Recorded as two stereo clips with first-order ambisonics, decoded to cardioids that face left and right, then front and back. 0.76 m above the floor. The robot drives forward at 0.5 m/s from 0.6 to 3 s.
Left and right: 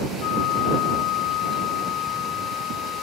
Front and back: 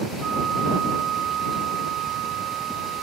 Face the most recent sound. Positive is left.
turn(degrees=135)